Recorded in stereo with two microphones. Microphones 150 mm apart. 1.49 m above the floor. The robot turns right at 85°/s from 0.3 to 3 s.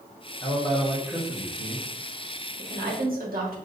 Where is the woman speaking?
110° right, 1.6 m; by 3.6 s 75° right, 1.6 m.